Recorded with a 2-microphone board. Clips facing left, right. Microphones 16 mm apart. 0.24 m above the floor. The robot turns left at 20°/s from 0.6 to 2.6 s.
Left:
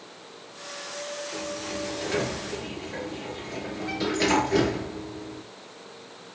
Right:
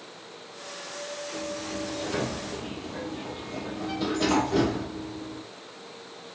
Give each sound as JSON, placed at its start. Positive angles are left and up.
{"t": 1.3, "sound": "a sliding door", "side_deg": 45, "distance_m": 3.5}